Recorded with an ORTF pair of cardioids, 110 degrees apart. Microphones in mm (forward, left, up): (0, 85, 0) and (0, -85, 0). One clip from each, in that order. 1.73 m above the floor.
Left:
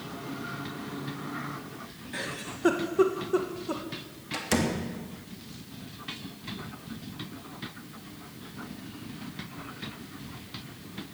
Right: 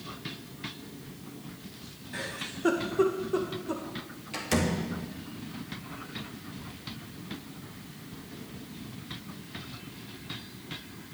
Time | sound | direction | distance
2.1 | a giggle | 15° left | 1.8 m
4.3 | a door slam | 15° left | 2.5 m